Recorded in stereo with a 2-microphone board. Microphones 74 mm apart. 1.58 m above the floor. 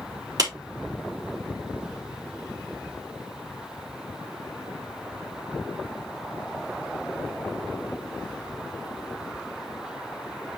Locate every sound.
0.4 s a clap: 60° right (ahead or behind), 4 m